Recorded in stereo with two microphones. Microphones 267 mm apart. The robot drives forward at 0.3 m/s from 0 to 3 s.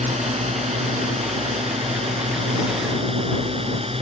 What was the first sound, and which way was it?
A drone, 25° right (ahead or behind).